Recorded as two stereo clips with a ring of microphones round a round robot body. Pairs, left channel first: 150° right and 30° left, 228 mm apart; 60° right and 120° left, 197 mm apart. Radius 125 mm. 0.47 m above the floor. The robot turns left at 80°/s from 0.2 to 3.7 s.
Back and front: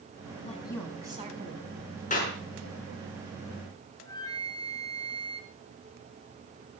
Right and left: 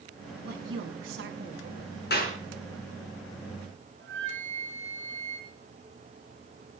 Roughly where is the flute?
Behind left.